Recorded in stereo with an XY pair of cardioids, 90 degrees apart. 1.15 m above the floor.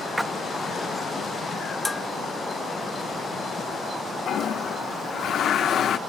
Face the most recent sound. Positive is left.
turn(degrees=70)